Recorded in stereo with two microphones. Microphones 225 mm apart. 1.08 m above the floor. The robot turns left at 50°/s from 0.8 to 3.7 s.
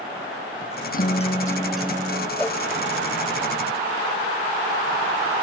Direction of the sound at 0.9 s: 40° left.